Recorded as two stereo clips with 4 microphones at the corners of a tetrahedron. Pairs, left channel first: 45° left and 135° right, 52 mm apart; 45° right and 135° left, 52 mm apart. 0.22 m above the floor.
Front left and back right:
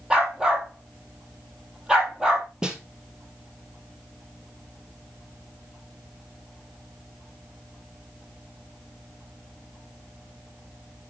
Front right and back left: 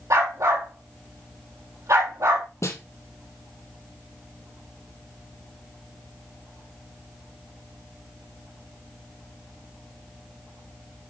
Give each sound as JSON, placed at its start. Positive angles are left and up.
{"t": 0.1, "sound": "a dog barking", "azimuth_deg": 145, "distance_m": 3.0}
{"t": 2.6, "sound": "a snare drum", "azimuth_deg": -60, "distance_m": 1.9}